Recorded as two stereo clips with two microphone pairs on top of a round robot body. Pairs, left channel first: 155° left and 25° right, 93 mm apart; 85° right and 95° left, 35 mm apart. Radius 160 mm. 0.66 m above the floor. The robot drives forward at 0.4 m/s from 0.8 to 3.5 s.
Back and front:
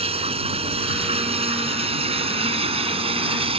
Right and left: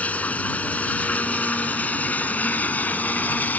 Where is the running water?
35° right; by 3.6 s 40° right.